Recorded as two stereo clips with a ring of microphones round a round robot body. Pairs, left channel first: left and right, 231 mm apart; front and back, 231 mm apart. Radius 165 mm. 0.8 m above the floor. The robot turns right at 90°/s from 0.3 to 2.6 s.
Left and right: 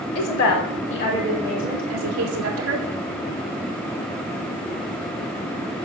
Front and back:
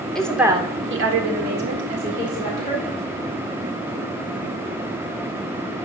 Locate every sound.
0.1 s a woman speaking: 85° left, 1.9 m; by 2.9 s 65° right, 1.9 m